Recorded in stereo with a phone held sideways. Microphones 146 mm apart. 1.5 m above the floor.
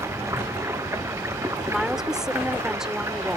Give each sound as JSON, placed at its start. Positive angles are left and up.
{"t": 0.0, "sound": "running water", "side_deg": -20}
{"t": 1.7, "sound": "a woman speaking", "side_deg": -5}